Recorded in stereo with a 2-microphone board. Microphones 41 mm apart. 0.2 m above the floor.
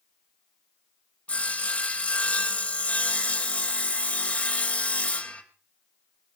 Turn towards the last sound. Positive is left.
turn(degrees=30)  # may be behind; listen again after turning